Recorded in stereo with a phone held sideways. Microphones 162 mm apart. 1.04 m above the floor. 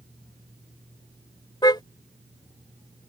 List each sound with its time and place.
1.6 s a car horn: 25° left (ahead or behind)